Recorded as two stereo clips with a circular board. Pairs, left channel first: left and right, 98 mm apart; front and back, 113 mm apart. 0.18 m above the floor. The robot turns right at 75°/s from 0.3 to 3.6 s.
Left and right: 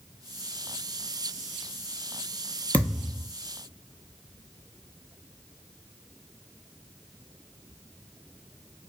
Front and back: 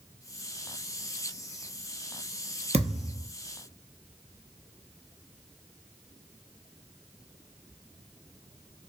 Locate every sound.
2.7 s a thud: 160° left, 0.5 m; by 3.3 s 160° right, 0.5 m